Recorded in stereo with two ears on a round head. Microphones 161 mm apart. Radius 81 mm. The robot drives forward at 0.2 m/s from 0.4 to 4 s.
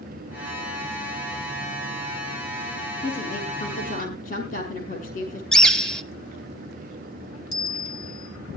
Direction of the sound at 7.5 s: 60° left (ahead or behind).